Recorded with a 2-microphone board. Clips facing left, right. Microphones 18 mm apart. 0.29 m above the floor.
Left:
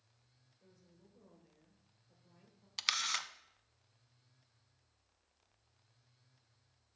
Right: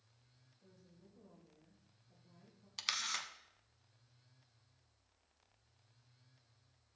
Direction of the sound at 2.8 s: 20° left (ahead or behind).